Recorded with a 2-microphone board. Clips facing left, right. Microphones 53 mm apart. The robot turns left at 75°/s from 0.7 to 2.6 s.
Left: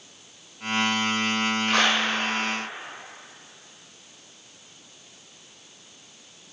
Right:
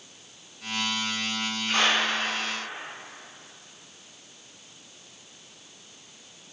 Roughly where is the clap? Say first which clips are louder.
Even; left.